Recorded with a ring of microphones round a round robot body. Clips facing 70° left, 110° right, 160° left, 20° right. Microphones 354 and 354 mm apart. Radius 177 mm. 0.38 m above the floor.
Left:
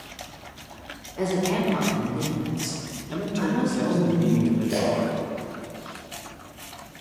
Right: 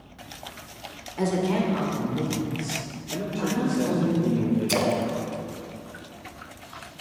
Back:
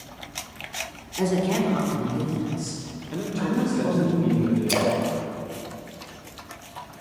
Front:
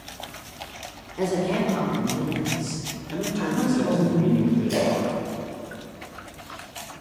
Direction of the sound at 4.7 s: 160° right.